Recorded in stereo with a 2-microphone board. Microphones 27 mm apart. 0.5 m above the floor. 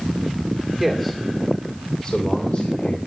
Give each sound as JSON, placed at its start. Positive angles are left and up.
{"t": 0.8, "sound": "a man speaking", "side_deg": -5, "distance_m": 1.6}